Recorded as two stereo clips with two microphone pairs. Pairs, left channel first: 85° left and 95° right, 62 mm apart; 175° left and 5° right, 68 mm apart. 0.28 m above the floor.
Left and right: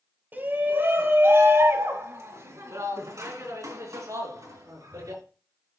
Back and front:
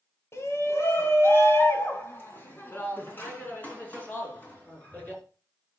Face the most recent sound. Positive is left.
turn(degrees=-115)